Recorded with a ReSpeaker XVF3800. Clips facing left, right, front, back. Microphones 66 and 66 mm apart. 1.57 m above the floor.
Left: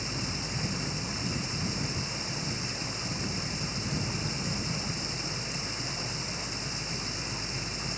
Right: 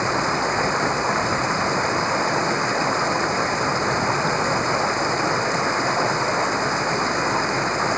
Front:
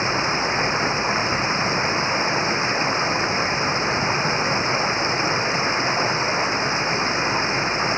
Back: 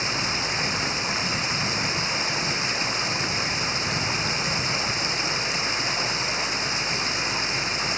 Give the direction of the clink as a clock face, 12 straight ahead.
No clink in this recording.